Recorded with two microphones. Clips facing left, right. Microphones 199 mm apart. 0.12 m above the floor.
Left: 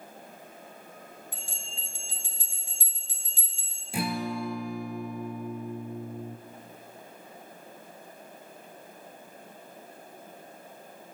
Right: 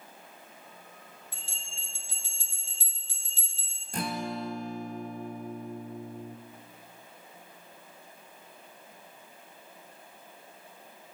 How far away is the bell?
About 1.6 m.